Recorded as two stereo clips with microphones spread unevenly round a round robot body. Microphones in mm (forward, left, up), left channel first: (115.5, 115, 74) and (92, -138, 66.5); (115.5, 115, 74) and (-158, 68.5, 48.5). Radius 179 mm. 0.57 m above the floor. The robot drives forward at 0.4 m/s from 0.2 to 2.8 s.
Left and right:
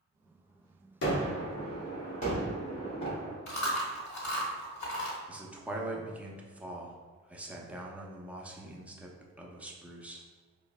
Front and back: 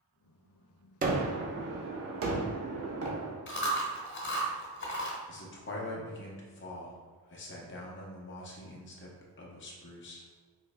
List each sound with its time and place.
1.0 s a gunshot: 130° left, 0.7 m; by 3.4 s 155° left, 1.3 m
3.5 s chewing: 60° left, 1.2 m
5.3 s a man speaking: 15° right, 0.7 m